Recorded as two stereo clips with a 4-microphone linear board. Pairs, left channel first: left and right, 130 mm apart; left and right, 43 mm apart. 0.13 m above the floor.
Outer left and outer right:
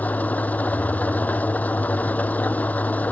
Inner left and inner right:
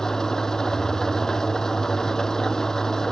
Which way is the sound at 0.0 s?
10° left (ahead or behind).